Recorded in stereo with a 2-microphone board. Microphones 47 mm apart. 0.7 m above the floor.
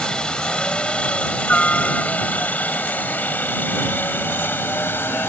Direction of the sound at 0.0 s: 20° left (ahead or behind).